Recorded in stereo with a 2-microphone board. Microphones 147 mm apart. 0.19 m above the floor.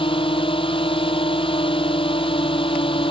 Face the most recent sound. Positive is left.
turn(degrees=40)  # may be behind; listen again after turning